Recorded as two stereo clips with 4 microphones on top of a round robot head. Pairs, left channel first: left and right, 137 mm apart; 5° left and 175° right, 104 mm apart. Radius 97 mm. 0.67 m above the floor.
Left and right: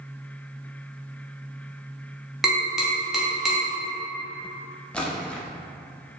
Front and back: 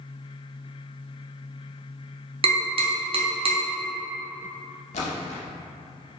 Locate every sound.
2.4 s tapping: 175° right, 0.7 m
4.9 s a splash: 10° left, 0.5 m